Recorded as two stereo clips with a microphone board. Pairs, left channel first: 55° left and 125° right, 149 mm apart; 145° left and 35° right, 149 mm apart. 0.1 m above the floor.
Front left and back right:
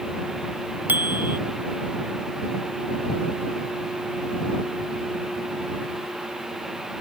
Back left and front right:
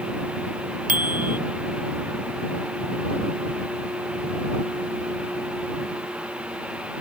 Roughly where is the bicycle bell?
Ahead right.